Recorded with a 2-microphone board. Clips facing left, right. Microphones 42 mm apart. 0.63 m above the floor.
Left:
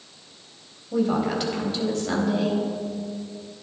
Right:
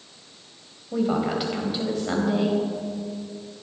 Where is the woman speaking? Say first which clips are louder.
Left 1 dB; 10° right (ahead or behind), 4 m.